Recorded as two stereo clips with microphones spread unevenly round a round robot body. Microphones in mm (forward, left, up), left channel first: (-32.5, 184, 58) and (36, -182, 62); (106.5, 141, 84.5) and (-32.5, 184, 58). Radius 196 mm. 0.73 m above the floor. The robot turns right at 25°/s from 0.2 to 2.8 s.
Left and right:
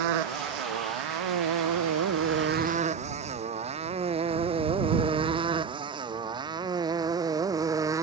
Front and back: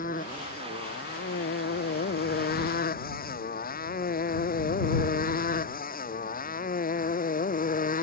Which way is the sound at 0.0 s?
75° right.